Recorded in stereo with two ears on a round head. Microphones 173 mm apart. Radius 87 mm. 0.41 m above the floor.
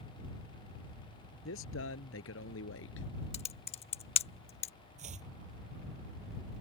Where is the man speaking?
80° left; by 3.1 s 70° left (ahead or behind).